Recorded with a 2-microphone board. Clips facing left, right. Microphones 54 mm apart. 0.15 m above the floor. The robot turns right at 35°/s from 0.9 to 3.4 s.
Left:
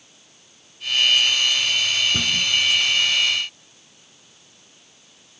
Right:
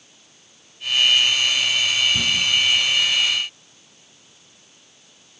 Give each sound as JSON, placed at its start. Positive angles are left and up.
{"t": 2.1, "sound": "a cupboard door", "side_deg": 55, "distance_m": 1.9}